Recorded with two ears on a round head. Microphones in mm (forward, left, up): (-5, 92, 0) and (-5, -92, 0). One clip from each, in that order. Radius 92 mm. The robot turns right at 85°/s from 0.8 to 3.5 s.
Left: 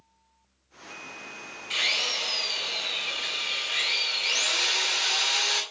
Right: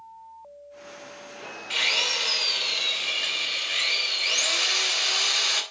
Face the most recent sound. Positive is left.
turn(degrees=-5)